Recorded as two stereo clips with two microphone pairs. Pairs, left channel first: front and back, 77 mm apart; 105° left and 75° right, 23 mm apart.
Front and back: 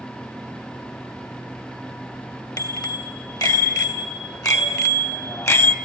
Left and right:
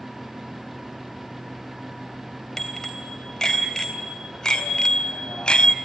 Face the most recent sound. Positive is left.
turn(degrees=55)